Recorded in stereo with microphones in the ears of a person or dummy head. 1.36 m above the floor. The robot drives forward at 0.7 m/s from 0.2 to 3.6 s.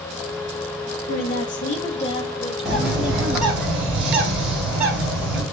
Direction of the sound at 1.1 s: 50° left (ahead or behind).